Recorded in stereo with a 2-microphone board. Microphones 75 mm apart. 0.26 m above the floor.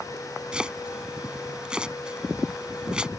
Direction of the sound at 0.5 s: 15° right (ahead or behind).